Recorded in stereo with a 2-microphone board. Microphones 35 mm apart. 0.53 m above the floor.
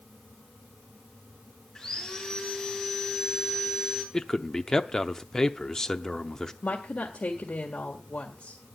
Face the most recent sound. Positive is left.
turn(degrees=55)  # may be behind; listen again after turning